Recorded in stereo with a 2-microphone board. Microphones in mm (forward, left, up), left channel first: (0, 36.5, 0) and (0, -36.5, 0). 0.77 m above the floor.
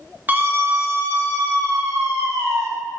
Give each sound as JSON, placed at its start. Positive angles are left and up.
{"t": 0.3, "sound": "a scream", "side_deg": -25, "distance_m": 0.8}